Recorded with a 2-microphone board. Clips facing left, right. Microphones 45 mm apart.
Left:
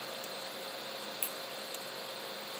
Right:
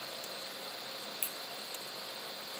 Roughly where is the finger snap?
Centre.